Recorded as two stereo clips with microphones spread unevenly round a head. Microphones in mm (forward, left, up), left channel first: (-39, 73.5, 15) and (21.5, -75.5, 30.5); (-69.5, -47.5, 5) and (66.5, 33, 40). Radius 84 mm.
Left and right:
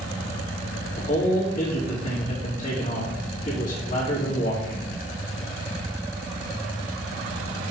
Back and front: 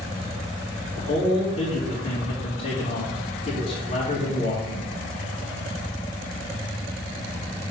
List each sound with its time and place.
0.9 s a man speaking: 170° left, 2.5 m